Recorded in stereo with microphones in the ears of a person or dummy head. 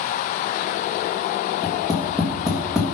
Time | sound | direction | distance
1.6 | tapping | centre (ahead or behind) | 1.7 m